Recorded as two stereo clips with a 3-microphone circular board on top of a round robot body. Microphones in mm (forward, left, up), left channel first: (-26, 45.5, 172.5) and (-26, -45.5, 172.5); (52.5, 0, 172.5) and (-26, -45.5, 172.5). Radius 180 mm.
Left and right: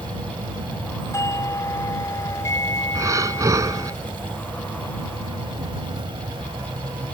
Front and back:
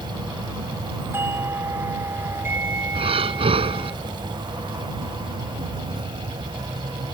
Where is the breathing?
145° right.